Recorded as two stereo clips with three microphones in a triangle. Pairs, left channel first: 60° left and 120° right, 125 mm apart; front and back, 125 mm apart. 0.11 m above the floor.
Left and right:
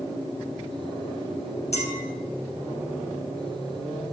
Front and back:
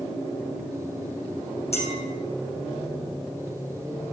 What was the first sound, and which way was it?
A clink, 30° left.